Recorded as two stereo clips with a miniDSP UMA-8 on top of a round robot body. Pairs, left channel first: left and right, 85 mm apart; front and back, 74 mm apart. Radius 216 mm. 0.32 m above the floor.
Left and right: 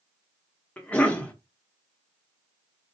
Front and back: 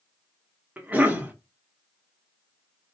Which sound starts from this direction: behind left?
A cough, at 0.8 s.